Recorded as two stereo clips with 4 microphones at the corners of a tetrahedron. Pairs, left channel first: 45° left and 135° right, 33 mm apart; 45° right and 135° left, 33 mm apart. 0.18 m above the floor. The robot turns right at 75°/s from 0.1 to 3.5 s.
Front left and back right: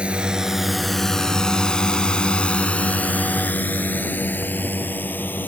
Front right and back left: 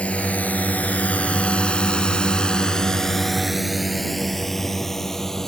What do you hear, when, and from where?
0.0 s a drone: 85° right; by 5.5 s 35° left